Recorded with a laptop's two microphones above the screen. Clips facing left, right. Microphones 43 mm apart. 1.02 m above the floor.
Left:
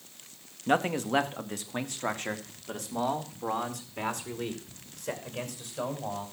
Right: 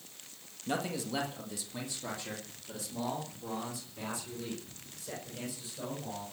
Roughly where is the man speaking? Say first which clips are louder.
Left 8 dB; left.